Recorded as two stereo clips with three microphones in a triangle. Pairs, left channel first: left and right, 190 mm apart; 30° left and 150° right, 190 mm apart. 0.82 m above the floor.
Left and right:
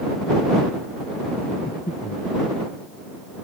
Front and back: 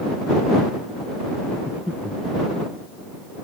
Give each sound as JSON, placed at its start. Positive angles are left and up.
{"t": 1.7, "sound": "breathing", "azimuth_deg": 130}